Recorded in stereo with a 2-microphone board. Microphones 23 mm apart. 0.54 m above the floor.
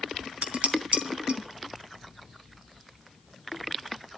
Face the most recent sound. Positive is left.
turn(degrees=-70)  # may be behind; listen again after turning